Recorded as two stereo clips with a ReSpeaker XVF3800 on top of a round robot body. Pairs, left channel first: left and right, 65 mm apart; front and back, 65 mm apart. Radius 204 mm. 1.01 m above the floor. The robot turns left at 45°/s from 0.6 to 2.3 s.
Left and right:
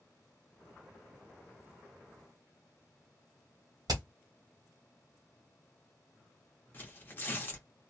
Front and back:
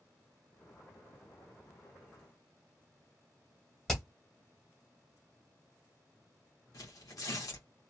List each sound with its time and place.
3.9 s hammering: 85° right, 1.2 m
6.7 s tearing paper: 30° left, 1.2 m